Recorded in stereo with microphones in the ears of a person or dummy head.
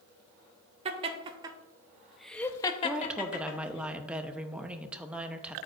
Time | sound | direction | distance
0.8 | laughter | 25° right (ahead or behind) | 1.5 m
2.8 | a woman speaking | centre (ahead or behind) | 0.8 m